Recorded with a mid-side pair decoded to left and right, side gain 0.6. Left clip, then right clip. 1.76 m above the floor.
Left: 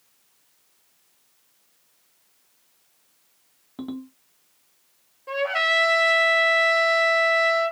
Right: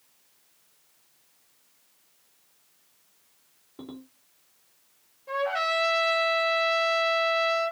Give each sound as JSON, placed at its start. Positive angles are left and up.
{"t": 3.8, "sound": "a ringtone", "azimuth_deg": 70, "distance_m": 2.5}
{"t": 5.3, "sound": "a trumpet", "azimuth_deg": 45, "distance_m": 3.5}